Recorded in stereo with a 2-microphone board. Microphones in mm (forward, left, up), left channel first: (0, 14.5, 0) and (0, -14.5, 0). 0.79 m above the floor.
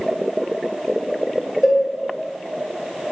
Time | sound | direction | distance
1.6 | a cowbell | 20° left (ahead or behind) | 1.1 m